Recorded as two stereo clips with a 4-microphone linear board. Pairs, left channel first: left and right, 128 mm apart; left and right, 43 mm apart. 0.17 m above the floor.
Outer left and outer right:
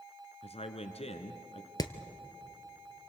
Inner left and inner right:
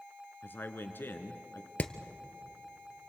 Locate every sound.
0.4 s a man speaking: 55° left (ahead or behind), 1.7 m
1.8 s hammering: 30° left (ahead or behind), 1.1 m